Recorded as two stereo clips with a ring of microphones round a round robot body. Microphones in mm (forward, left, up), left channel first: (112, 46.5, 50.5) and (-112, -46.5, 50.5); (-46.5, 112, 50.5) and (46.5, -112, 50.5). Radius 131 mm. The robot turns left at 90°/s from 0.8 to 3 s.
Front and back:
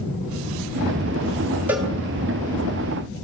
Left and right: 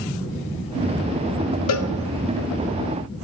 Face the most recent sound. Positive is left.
turn(degrees=5)